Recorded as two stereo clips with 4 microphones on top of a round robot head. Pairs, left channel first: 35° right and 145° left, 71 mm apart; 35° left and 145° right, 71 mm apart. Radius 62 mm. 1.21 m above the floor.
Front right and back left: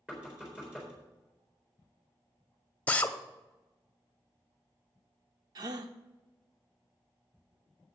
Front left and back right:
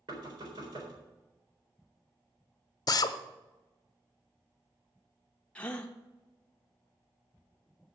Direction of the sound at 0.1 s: 145° right.